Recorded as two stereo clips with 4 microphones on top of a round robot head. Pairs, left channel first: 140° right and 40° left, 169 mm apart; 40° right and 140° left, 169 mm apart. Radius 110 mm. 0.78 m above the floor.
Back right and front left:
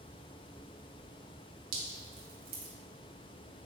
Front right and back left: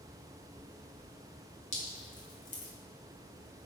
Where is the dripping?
5° left, 1.4 m.